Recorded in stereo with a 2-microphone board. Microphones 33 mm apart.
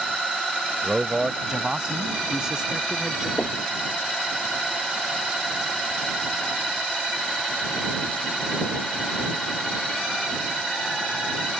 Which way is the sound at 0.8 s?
25° right (ahead or behind).